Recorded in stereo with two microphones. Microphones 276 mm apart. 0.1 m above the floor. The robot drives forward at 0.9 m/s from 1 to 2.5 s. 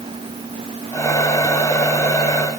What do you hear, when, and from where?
Only background noise.